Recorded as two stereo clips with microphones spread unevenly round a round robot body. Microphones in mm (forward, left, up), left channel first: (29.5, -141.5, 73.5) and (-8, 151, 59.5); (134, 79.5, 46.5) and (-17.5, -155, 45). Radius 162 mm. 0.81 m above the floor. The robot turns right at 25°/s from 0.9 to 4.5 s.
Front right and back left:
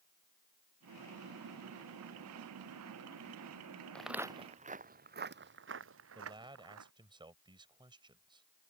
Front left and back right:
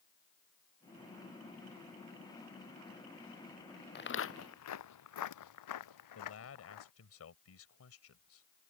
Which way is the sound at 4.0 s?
5° left.